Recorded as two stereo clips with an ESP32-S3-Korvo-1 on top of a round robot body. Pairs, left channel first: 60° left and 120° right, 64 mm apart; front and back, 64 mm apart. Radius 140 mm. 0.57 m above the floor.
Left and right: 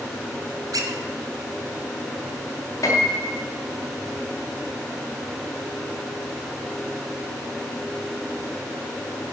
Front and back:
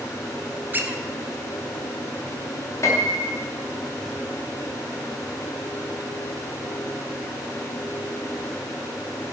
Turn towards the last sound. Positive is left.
turn(degrees=35)